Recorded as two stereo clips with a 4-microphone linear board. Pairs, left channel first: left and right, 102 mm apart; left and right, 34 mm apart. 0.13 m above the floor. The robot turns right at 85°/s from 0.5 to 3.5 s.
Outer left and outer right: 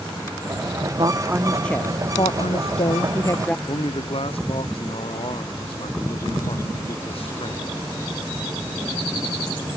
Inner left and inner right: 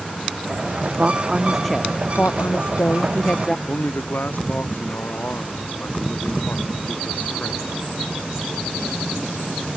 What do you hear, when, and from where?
1.0 s a woman speaking: 50° right; by 3.6 s 165° left
3.7 s a man speaking: 65° left (ahead or behind)